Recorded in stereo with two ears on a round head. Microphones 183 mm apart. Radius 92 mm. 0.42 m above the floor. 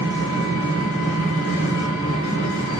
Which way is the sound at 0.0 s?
65° left (ahead or behind).